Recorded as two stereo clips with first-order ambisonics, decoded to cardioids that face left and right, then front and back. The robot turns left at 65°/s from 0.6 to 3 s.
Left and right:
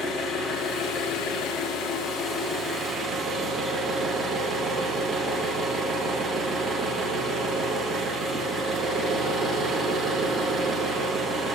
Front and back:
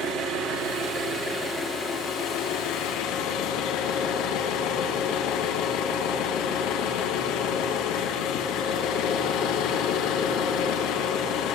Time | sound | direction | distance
0.0 | an engine running | 160° left | 4.5 m